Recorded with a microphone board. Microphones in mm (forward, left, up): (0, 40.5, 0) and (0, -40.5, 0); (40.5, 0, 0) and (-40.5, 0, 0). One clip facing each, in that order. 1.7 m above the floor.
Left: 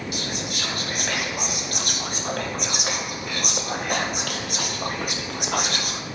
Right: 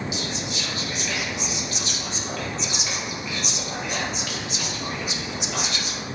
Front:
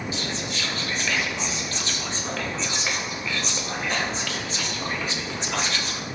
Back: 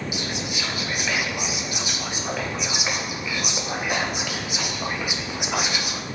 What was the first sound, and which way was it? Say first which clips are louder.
Whispering: even, back 1 dB; 105° left.